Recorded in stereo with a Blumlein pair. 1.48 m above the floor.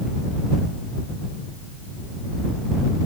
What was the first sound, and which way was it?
Only background noise.